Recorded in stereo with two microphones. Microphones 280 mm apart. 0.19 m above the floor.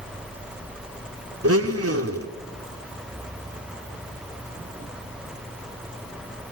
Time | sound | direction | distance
1.4 | a blender | 55° right (ahead or behind) | 0.9 m